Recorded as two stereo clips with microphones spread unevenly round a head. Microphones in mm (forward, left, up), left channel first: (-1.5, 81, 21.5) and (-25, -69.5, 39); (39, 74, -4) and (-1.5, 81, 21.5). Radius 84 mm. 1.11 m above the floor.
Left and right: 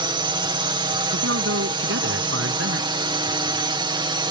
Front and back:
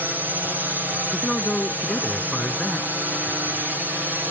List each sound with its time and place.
0.0 s a drone: 105° right
1.1 s a man speaking: 95° right